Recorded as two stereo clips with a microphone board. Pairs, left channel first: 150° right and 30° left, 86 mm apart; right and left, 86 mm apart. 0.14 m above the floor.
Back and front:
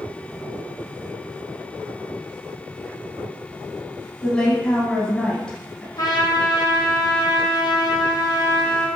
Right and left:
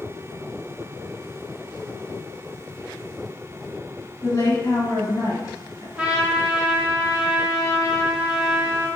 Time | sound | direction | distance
4.2 | a woman speaking | 70° right | 1.5 m
6.0 | a trumpet | 170° left | 1.4 m